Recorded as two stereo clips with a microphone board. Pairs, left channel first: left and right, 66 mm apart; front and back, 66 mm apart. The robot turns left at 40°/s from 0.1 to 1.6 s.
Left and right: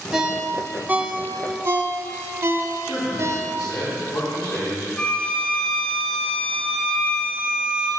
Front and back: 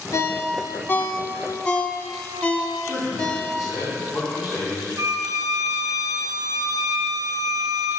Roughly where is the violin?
Behind.